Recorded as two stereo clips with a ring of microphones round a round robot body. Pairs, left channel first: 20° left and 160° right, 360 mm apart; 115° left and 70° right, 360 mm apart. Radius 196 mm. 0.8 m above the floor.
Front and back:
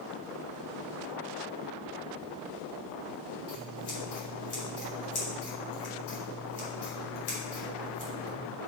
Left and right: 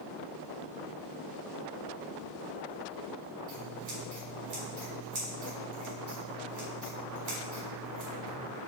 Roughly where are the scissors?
Ahead right.